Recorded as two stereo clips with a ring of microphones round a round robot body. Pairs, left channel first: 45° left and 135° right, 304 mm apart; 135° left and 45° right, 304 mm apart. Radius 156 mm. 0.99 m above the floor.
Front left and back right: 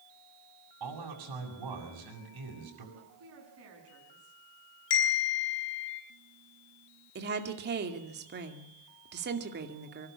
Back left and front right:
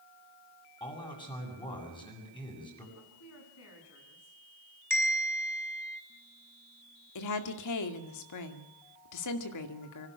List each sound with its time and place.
0.8 s a man speaking: 150° right, 7.5 m
3.0 s a woman speaking: straight behind, 7.5 m
4.9 s a bell: 55° left, 5.5 m
7.2 s a woman speaking: 165° left, 2.5 m